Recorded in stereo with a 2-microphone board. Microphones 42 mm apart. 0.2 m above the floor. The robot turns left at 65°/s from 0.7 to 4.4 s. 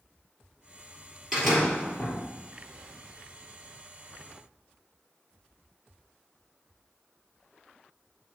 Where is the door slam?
175° right, 3.5 m; by 2.2 s 130° left, 3.5 m.